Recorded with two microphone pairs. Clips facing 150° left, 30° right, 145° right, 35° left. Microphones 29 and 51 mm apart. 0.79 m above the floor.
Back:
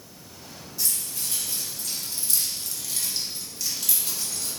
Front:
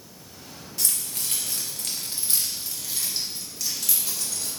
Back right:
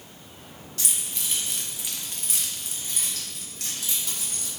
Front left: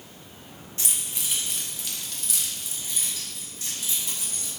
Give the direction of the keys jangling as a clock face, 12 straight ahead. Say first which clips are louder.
Front 1 dB, even; 1 o'clock.